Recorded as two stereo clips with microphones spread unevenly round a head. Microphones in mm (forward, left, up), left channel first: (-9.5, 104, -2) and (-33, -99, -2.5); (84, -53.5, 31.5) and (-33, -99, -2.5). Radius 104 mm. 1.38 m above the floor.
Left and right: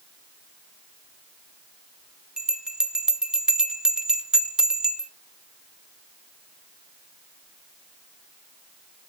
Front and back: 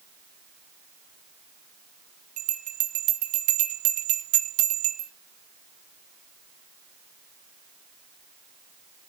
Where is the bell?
175° left, 0.9 m.